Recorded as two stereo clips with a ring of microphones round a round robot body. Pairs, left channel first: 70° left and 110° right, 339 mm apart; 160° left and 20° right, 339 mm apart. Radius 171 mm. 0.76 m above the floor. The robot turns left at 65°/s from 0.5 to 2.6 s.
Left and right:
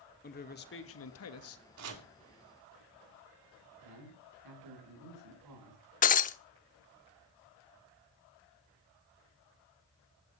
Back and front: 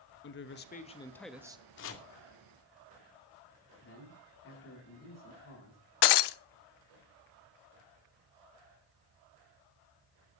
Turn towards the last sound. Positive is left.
turn(degrees=135)